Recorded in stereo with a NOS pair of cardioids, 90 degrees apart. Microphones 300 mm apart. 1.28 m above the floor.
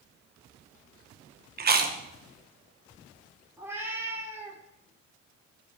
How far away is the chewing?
About 1.1 m.